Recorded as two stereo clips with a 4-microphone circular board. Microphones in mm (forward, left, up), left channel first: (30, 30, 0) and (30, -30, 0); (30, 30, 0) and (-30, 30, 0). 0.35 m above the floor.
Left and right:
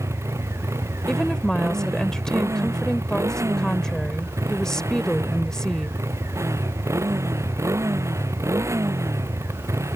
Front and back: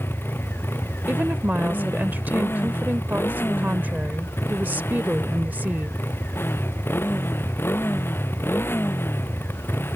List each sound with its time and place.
0.0 s a motorcycle: 55° right
1.1 s a woman speaking: 160° left